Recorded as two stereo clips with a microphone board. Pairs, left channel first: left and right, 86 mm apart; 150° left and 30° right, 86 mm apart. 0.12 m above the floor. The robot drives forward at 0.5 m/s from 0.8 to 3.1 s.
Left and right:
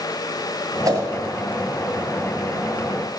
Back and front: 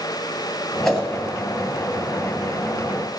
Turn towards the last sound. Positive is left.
turn(degrees=-145)